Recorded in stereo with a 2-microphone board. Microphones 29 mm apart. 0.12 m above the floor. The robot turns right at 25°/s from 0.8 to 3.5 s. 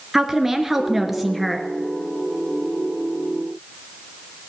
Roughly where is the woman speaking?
Centre.